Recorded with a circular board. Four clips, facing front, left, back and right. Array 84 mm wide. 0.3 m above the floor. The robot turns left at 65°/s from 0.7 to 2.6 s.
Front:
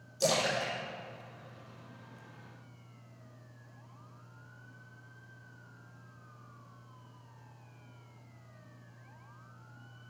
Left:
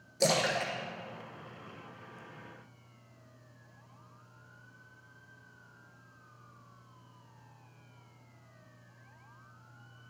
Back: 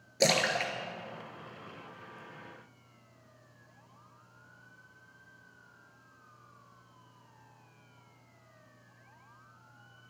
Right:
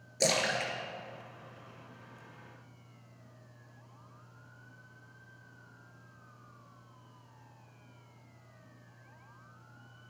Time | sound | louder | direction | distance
0.2 | a splash | left 2 dB, back 2 dB | 165° right | 1.2 m